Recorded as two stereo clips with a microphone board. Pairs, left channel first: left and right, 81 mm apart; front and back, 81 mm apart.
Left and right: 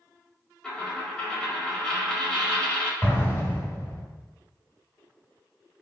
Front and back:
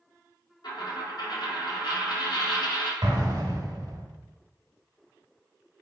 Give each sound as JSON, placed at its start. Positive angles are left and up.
{"t": 0.6, "sound": "a dropped coin", "azimuth_deg": 10, "distance_m": 1.5}
{"t": 3.0, "sound": "an explosion", "azimuth_deg": 150, "distance_m": 1.2}